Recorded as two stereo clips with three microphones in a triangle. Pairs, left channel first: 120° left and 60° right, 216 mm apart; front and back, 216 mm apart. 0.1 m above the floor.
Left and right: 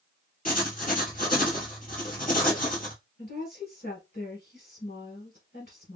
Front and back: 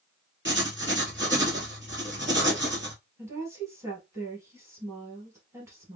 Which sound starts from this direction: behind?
Writing, at 0.5 s.